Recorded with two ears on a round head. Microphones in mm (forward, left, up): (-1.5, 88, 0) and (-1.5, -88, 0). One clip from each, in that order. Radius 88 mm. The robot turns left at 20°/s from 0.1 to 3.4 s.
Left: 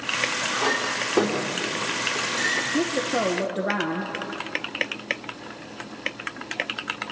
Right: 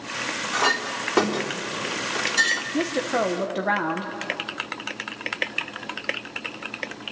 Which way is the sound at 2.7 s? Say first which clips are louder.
Even; 20° right (ahead or behind).